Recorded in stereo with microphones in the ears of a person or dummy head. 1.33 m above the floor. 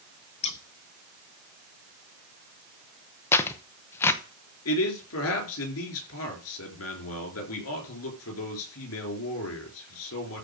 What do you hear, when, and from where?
0.4 s scissors: 30° left (ahead or behind), 0.6 m
3.3 s tearing paper: 15° left (ahead or behind), 1.0 m
4.7 s a man speaking: 80° left, 4 m